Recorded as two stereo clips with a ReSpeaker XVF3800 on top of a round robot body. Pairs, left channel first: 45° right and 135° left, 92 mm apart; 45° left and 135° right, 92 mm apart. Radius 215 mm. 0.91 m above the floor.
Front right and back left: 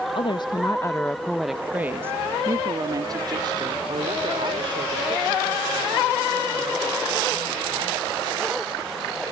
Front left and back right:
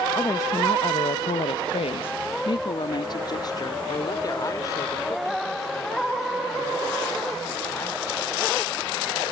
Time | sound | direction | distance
0.1 | a woman speaking | 15° right | ?